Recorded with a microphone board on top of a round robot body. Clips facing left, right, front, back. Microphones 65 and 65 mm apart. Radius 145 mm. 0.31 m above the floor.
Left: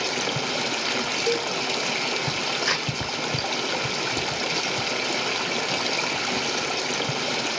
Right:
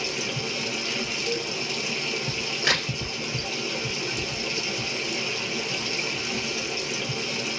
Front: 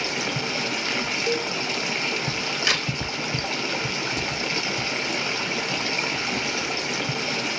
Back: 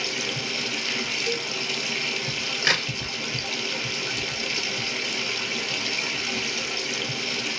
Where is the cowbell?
65° left, 0.5 m.